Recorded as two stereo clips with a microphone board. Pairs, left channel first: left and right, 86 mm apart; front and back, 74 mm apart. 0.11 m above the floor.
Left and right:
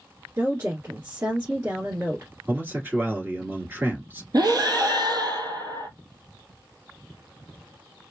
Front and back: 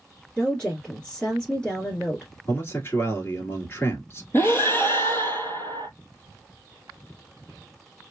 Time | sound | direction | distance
0.4 | a woman speaking | 65° right | 1.5 m
2.5 | a man speaking | 40° right | 1.9 m
4.3 | breathing | 55° right | 0.7 m